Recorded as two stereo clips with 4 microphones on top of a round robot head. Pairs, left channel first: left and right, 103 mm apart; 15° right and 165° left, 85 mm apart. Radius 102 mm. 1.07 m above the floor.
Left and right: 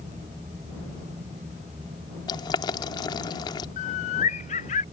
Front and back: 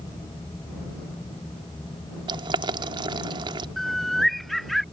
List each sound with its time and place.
2.3 s boiling: 140° left
3.8 s a bird: 75° left